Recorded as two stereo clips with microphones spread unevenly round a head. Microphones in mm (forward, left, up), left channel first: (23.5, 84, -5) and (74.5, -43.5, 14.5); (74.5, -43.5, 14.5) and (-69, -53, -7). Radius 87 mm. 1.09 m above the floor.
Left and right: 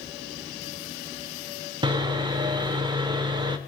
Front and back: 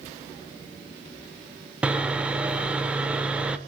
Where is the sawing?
85° right, 0.9 m.